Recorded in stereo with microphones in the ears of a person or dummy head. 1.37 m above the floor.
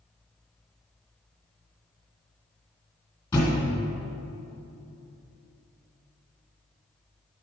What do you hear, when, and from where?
3.3 s a thud: 25° left (ahead or behind), 2.0 m